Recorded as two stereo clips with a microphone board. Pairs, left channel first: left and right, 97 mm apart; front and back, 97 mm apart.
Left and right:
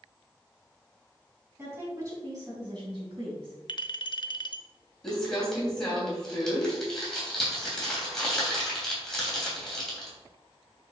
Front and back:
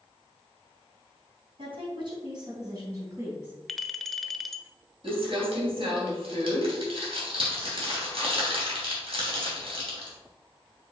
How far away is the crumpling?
About 3 m.